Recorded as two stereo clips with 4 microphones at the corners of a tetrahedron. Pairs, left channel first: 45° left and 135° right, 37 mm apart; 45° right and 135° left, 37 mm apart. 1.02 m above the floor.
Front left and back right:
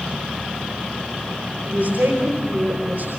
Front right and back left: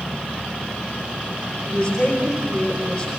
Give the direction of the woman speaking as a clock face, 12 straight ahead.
4 o'clock.